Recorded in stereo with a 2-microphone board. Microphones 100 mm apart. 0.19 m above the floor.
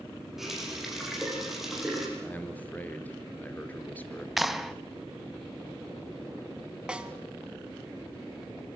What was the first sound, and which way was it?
A running tap, 5° right (ahead or behind).